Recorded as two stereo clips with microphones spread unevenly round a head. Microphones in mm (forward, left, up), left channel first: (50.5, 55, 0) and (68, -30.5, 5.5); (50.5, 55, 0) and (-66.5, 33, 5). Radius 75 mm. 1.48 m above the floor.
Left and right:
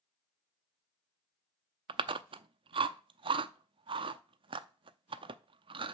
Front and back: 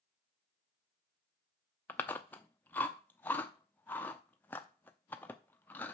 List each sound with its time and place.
1.9 s chewing: 65° right, 0.5 m